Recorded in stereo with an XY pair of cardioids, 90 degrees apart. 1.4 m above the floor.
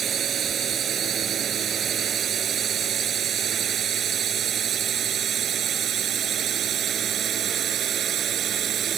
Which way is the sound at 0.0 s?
60° right.